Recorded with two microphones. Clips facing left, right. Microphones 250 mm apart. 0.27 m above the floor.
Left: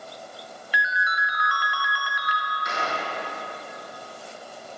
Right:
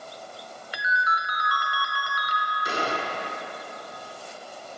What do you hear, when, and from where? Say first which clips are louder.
0.7 s a ringtone: right 1 dB; 45° right (ahead or behind), 0.6 m
2.6 s a gunshot: right 3 dB; 35° right (ahead or behind), 0.5 m